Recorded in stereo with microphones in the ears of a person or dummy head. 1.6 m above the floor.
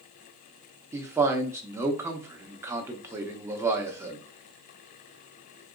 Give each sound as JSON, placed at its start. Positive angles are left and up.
{"t": 0.9, "sound": "a man speaking", "side_deg": -15, "distance_m": 0.7}